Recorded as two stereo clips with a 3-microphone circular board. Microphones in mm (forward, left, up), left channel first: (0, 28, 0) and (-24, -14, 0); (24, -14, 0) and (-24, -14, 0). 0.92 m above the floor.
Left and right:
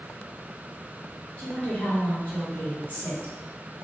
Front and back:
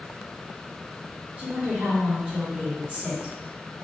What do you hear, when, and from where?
1.4 s a woman speaking: 115° left, 2.0 m